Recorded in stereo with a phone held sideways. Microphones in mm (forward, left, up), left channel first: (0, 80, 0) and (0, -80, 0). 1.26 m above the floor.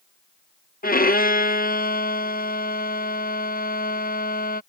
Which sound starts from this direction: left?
A violin, at 0.8 s.